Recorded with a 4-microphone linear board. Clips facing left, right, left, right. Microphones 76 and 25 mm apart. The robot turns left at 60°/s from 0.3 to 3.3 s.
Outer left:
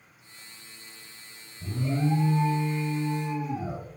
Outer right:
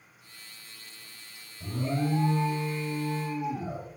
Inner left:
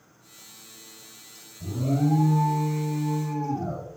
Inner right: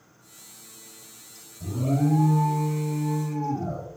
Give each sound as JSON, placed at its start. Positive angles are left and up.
{"t": 1.6, "sound": "an alarm", "azimuth_deg": -105, "distance_m": 0.7}